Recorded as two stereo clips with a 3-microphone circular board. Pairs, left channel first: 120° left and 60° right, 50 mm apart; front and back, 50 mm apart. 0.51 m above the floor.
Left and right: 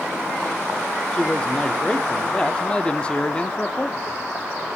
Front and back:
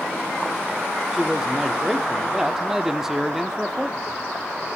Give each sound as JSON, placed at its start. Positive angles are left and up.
{"t": 1.1, "sound": "a man speaking", "azimuth_deg": 115, "distance_m": 0.6}